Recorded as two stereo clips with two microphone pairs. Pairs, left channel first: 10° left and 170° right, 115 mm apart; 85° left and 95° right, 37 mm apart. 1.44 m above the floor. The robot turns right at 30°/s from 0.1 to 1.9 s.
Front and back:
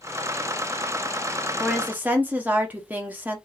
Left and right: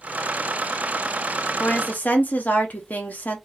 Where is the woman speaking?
110° left, 1.1 m; by 3.4 s 115° left, 1.1 m.